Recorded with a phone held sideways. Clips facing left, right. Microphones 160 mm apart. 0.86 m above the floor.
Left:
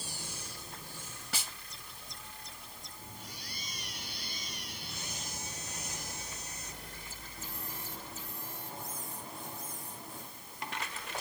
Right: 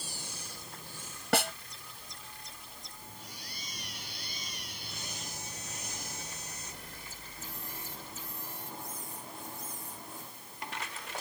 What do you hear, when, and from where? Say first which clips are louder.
1.3 s a snare drum: right 16 dB; 70° right (ahead or behind)